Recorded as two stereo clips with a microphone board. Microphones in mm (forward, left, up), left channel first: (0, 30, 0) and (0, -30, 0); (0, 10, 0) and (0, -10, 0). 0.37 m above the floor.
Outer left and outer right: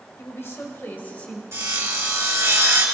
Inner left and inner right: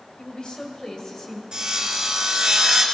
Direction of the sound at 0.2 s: 50° left (ahead or behind).